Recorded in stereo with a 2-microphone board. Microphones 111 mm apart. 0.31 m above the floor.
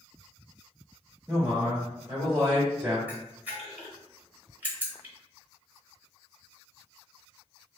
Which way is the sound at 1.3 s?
25° right (ahead or behind).